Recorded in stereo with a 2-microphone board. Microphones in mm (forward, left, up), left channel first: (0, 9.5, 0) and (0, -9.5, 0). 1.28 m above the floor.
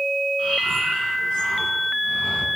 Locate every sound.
0.4 s breathing: 85° left, 5.5 m